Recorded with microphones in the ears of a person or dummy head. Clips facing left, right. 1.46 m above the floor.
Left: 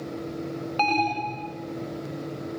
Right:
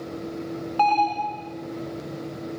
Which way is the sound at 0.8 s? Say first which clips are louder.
Right 4 dB; 30° left (ahead or behind).